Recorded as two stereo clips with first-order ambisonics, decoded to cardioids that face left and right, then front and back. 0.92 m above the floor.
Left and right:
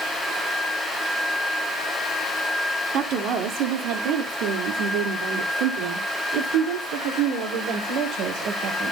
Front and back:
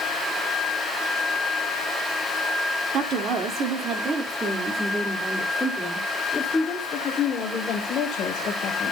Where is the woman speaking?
135° right, 2 m; by 8.9 s 55° right, 3.5 m.